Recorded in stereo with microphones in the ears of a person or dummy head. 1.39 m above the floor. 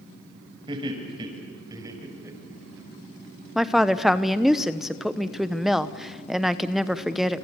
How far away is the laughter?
About 6.5 m.